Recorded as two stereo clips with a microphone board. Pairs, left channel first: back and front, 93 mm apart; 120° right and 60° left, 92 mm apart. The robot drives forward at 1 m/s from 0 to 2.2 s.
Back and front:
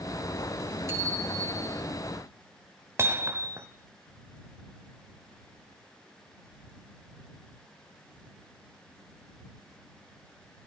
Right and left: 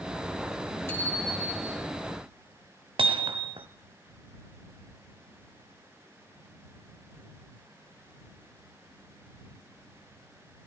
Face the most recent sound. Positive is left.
turn(degrees=65)